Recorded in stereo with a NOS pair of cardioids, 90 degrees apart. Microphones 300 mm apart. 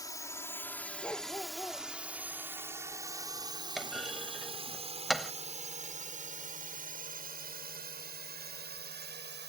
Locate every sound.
0.0 s a drone: 10° left; by 9.5 s 35° right
1.0 s a dog barking: 5° left
3.8 s a clunk: straight ahead